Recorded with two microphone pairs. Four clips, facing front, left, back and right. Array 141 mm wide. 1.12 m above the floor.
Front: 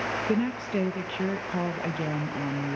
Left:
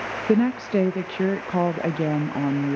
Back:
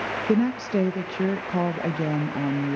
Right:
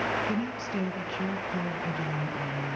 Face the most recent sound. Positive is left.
turn(degrees=105)